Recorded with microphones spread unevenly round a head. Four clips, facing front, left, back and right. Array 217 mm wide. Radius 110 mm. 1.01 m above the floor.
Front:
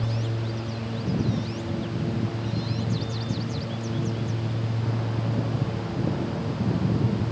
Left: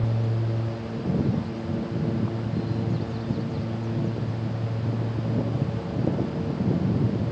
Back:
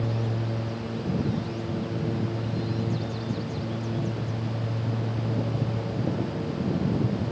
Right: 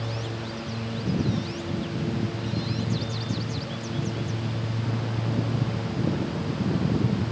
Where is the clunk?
I don't hear a clunk.